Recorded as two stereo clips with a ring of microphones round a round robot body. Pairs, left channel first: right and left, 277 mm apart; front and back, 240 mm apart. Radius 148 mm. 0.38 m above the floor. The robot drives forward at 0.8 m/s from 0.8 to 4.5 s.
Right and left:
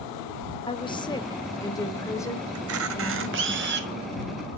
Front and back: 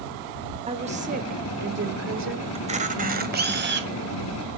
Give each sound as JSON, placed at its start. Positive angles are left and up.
{"t": 0.7, "sound": "a woman speaking", "azimuth_deg": -145, "distance_m": 1.3}
{"t": 2.5, "sound": "a camera shutter", "azimuth_deg": 115, "distance_m": 1.8}